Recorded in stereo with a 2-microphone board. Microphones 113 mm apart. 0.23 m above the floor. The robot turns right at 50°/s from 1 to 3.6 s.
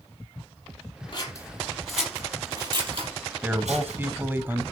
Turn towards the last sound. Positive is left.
turn(degrees=-20)  # may be behind; listen again after turning